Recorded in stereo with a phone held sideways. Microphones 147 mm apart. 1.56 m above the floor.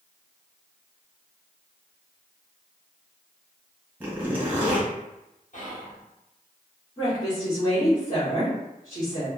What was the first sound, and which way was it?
A zipper, 10° right (ahead or behind).